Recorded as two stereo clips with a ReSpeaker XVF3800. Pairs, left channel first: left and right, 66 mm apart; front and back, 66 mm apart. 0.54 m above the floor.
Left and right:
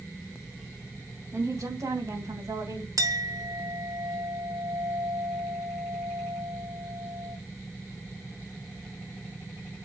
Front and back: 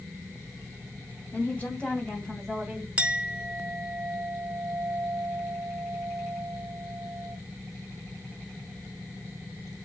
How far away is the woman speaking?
About 3.5 m.